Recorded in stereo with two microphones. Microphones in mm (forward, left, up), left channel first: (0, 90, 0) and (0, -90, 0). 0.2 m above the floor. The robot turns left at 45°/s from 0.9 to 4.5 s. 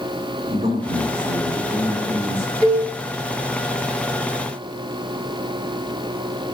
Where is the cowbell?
25° left (ahead or behind), 2 m; by 2.9 s 20° left (ahead or behind), 2 m.